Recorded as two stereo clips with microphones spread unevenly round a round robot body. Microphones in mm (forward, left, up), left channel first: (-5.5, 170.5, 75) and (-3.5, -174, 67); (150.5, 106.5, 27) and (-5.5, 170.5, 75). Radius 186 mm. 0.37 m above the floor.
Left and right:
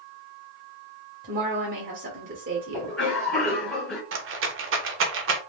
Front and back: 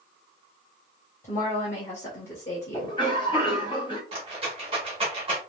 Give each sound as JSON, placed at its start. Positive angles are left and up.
{"t": 1.2, "sound": "a woman speaking", "azimuth_deg": -50, "distance_m": 1.1}
{"t": 2.7, "sound": "a cough", "azimuth_deg": 0, "distance_m": 1.5}
{"t": 4.1, "sound": "a rattle", "azimuth_deg": -135, "distance_m": 0.7}